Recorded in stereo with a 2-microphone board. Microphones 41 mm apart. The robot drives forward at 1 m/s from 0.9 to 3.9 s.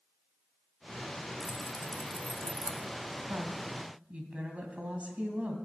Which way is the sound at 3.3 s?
40° right (ahead or behind).